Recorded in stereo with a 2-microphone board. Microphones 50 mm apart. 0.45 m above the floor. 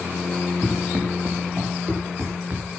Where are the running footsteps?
50° right (ahead or behind), 4 m; by 2.8 s 35° right (ahead or behind), 4 m.